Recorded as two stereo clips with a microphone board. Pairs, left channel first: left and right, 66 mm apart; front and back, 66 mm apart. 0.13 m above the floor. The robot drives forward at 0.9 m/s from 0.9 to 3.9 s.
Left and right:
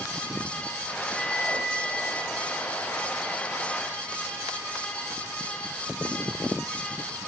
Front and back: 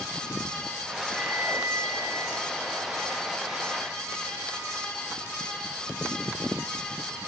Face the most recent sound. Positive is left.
turn(degrees=180)